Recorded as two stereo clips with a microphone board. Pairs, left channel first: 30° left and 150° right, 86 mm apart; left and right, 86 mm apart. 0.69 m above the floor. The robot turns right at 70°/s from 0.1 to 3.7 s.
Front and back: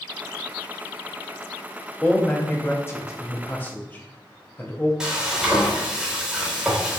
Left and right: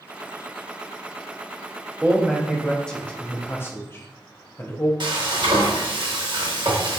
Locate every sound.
2.0 s a man speaking: 45° right, 0.7 m; by 4.9 s 75° left, 0.7 m
5.0 s frying: 70° right, 0.9 m